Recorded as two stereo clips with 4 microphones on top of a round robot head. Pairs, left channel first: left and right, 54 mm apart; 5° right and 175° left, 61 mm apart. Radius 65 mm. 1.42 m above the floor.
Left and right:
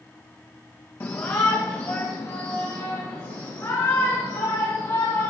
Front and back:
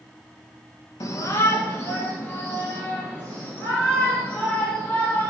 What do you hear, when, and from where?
1.0 s a shout: 30° left, 1.3 m; by 5.3 s 60° left, 5.5 m